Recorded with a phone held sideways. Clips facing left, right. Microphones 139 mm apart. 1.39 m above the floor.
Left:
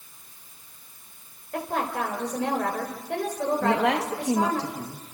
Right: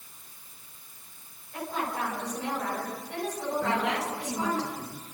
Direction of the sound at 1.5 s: 85° left.